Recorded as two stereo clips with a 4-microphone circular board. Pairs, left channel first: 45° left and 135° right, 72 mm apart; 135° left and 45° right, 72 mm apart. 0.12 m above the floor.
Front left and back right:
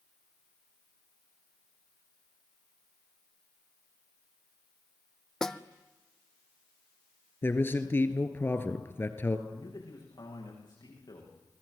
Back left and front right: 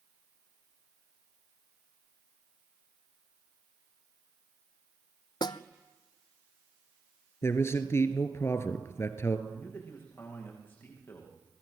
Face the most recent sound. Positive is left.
turn(degrees=70)